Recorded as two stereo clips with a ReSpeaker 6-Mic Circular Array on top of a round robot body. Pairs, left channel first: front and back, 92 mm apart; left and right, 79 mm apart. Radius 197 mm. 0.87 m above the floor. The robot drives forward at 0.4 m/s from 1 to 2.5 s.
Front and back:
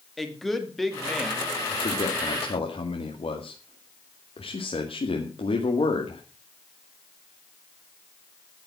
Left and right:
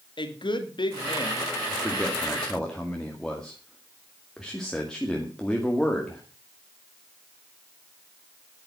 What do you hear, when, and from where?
0.2 s a woman speaking: 85° left, 2.5 m; by 1.6 s 90° left, 2.5 m
1.7 s a man speaking: 5° left, 2.5 m; by 6.2 s 10° left, 2 m